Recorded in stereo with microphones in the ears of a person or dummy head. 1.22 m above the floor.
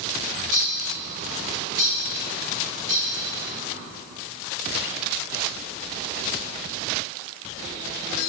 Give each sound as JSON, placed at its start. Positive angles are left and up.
{"t": 0.5, "sound": "a bird", "side_deg": -45, "distance_m": 3.0}